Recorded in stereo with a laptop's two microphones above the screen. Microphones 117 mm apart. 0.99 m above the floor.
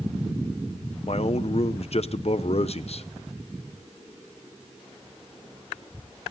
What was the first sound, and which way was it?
A man speaking, 60° left (ahead or behind).